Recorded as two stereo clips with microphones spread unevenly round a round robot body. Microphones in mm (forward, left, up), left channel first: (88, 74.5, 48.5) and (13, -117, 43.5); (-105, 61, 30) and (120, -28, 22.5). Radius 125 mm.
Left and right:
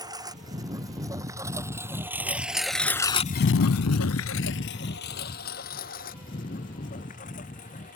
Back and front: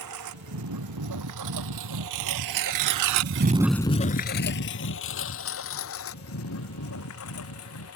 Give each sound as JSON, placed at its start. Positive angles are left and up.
{"t": 0.0, "sound": "a lawn mower", "azimuth_deg": -40}